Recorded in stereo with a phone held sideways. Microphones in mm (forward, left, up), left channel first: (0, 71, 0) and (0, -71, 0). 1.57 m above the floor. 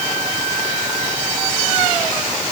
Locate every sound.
Only background noise.